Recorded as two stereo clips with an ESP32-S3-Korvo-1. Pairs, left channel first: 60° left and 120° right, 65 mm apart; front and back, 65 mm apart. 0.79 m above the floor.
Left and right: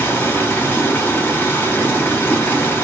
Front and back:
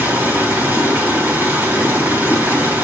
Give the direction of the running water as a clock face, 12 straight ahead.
8 o'clock.